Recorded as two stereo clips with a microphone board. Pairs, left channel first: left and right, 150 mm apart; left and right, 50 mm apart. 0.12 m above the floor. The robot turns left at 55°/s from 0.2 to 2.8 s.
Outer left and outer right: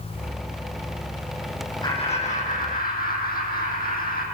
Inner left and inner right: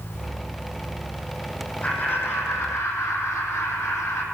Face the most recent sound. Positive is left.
turn(degrees=95)